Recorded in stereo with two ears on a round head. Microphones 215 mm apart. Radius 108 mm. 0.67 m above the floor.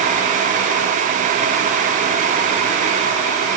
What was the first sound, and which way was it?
Only background noise.